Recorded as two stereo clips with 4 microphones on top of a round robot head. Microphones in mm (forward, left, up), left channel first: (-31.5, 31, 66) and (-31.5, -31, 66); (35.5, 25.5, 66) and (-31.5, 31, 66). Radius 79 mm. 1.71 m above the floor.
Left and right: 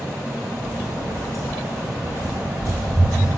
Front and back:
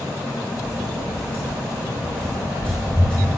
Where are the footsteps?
40° left, 2.5 m; by 3.3 s 75° left, 3 m.